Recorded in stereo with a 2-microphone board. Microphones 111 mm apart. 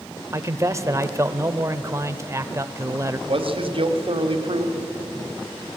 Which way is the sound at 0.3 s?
25° right (ahead or behind).